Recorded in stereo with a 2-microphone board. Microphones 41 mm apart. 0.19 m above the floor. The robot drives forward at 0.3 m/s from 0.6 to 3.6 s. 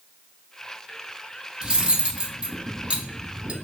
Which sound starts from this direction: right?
Cutlery clinking, at 1.6 s.